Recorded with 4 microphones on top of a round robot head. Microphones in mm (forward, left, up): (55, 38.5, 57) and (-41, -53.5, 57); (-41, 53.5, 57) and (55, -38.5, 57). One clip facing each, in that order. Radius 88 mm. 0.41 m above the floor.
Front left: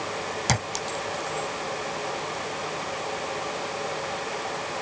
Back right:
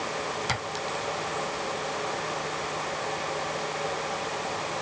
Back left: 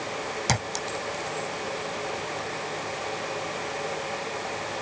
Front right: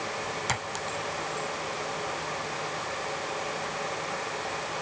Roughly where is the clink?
Left.